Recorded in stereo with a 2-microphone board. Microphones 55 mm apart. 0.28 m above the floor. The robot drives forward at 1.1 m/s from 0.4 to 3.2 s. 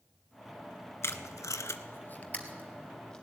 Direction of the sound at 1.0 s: 55° left (ahead or behind).